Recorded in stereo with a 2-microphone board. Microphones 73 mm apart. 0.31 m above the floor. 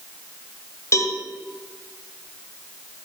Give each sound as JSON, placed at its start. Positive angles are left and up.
{"t": 0.9, "sound": "a cowbell", "side_deg": 45, "distance_m": 1.2}